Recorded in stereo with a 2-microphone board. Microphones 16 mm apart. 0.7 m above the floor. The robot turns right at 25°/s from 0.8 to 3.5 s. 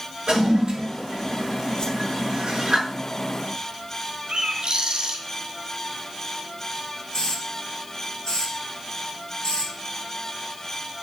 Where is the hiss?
60° left (ahead or behind), 2 m.